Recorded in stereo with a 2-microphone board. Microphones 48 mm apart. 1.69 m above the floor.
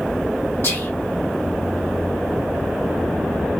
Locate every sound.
0.6 s whispering: 55° left (ahead or behind), 0.9 m